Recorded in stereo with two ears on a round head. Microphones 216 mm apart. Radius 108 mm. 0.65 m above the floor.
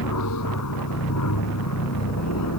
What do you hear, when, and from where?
0.0 s an aircraft: 75° left (ahead or behind)